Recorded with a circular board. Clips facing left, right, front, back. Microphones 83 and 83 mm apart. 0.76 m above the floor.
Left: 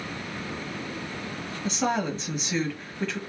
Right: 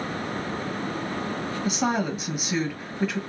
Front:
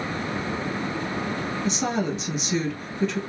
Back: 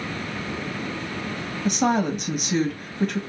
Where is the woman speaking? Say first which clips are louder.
Right 1 dB, back 6 dB; 170° right, 1.2 m.